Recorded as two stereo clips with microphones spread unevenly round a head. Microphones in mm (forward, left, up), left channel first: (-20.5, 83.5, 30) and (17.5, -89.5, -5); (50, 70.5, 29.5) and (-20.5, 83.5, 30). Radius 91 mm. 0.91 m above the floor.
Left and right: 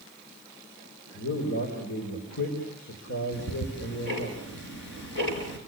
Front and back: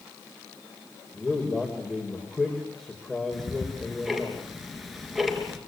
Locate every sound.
1.1 s a man speaking: 75° left, 5 m
3.3 s ticking: 80° left, 4.5 m